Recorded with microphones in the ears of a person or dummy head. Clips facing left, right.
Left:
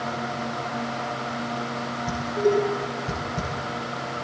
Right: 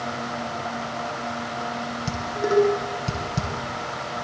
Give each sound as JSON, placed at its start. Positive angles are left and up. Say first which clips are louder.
{"t": 2.1, "sound": "dishes clattering", "louder": "left 3 dB", "side_deg": -80, "distance_m": 9.0}